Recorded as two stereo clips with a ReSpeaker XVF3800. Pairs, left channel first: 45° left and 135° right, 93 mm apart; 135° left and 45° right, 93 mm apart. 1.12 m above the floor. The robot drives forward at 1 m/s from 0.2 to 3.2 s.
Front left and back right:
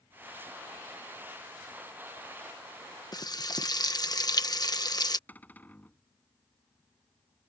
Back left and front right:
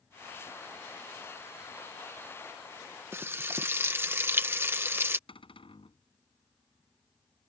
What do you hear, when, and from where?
3.1 s frying: 15° left
5.3 s a cupboard door: 115° left